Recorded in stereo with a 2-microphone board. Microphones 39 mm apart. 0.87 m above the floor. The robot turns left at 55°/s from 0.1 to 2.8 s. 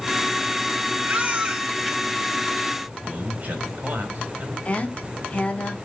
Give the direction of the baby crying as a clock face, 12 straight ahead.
4 o'clock.